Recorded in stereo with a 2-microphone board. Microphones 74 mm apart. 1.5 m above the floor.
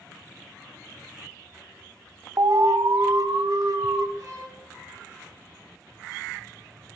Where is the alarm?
50° right (ahead or behind), 1.3 m.